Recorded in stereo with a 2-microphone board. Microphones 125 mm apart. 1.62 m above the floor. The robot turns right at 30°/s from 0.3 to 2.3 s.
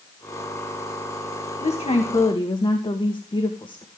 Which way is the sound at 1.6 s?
60° left (ahead or behind).